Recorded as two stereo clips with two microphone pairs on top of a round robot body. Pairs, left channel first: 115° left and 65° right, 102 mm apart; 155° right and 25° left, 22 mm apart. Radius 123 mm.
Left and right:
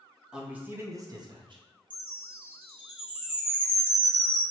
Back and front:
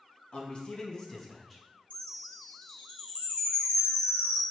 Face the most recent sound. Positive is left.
turn(degrees=-145)